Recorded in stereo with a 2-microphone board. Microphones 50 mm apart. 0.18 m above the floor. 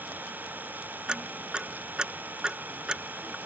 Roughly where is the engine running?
Right.